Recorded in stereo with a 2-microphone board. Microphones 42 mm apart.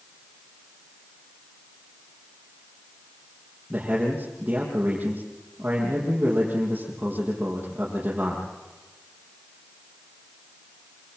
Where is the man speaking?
30° right (ahead or behind), 7.5 m.